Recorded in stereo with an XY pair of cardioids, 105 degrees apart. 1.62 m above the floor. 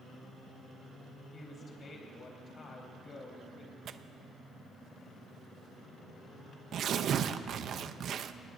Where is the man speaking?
40° left, 4.5 m.